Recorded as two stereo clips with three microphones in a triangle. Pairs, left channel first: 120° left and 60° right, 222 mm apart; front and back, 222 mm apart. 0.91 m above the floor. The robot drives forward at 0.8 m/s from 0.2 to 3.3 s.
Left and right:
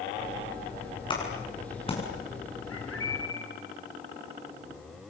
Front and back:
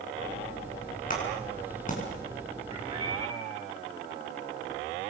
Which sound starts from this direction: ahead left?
A clap, at 1.1 s.